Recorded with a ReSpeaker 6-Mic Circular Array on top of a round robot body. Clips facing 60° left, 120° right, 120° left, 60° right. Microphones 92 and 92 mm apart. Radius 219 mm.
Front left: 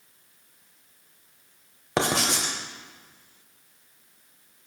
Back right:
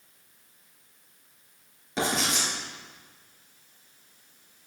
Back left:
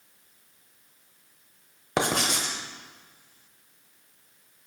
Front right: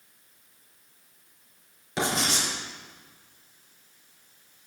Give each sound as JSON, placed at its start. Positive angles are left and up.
{"t": 2.0, "sound": "writing", "azimuth_deg": 90, "distance_m": 0.8}